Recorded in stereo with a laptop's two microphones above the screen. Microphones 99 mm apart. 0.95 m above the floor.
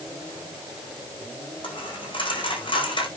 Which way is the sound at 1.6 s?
55° left (ahead or behind).